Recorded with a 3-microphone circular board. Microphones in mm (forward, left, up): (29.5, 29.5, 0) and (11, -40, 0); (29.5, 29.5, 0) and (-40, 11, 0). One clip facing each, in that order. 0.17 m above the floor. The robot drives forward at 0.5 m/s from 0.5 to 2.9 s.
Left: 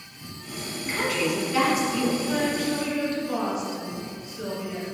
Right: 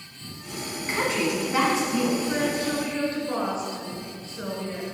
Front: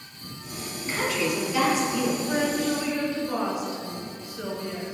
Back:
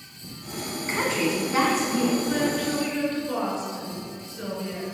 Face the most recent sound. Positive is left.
turn(degrees=-60)